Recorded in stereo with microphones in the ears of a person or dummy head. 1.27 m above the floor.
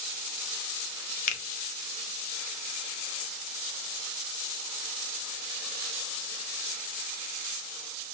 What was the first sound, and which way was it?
A finger snap, 40° left (ahead or behind).